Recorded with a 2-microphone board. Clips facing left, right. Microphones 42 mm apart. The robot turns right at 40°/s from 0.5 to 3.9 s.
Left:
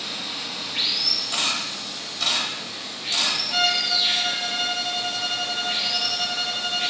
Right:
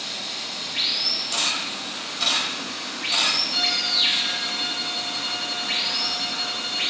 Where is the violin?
50° left (ahead or behind), 0.7 m; by 6.9 s 65° left (ahead or behind), 0.7 m.